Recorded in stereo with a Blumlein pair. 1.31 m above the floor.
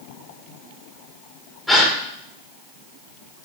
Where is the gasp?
5° left, 1.3 m.